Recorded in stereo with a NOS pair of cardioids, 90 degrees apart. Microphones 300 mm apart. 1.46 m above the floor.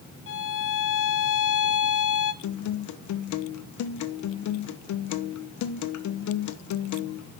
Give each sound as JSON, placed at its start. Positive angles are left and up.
{"t": 0.3, "sound": "a violin", "azimuth_deg": 45, "distance_m": 1.2}
{"t": 2.4, "sound": "a guitar", "azimuth_deg": 65, "distance_m": 1.2}